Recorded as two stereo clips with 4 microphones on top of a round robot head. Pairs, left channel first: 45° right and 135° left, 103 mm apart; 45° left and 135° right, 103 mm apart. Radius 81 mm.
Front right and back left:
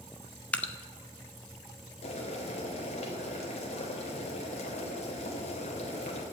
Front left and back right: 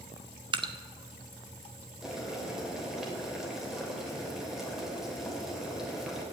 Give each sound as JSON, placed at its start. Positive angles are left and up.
{"t": 0.5, "sound": "dripping", "azimuth_deg": -120, "distance_m": 1.2}
{"t": 2.0, "sound": "boiling", "azimuth_deg": -50, "distance_m": 3.0}